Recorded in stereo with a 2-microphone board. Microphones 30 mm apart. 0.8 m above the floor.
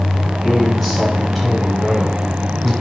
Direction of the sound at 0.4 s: 10° left (ahead or behind).